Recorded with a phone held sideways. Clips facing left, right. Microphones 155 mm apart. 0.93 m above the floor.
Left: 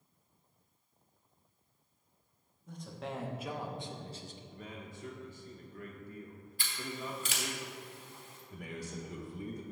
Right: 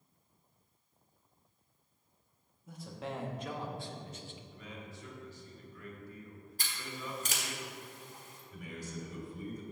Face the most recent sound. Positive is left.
turn(degrees=75)  # may be behind; listen again after turning